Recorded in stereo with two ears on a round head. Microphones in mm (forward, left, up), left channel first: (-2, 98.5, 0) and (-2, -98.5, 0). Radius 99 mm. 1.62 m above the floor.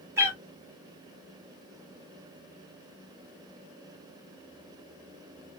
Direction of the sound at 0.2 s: 10° right (ahead or behind).